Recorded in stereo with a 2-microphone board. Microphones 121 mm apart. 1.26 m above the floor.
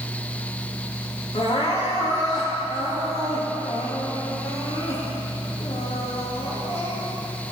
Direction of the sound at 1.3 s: 60° left (ahead or behind).